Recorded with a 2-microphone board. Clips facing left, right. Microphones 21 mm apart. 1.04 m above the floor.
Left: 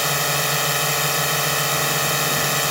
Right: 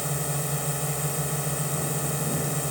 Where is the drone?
60° left (ahead or behind).